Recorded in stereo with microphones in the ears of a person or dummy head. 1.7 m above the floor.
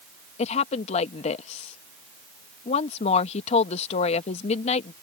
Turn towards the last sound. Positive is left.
turn(degrees=35)  # may be behind; listen again after turning